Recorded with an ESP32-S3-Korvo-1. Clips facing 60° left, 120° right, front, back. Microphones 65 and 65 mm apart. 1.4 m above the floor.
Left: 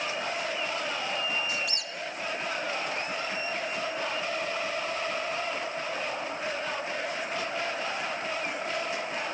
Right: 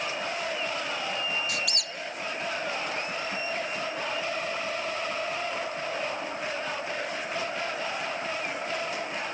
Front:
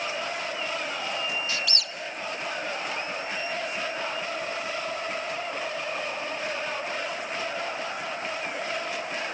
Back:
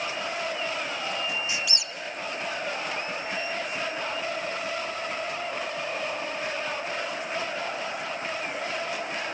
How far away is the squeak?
About 0.8 m.